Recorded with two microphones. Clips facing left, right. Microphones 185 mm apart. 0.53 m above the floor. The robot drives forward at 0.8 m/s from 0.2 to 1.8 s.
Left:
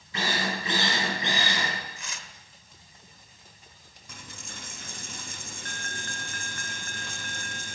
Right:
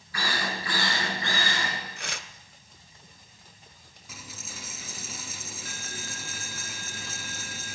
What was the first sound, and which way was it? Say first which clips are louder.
A drill: left 2 dB; 25° left (ahead or behind).